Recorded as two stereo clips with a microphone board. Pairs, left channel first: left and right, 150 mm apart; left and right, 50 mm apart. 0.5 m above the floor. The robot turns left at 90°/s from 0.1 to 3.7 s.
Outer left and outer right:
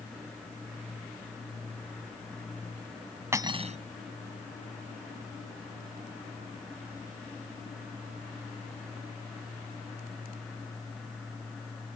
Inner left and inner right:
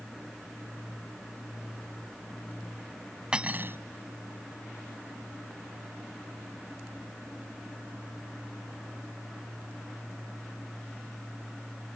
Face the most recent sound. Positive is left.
turn(degrees=-50)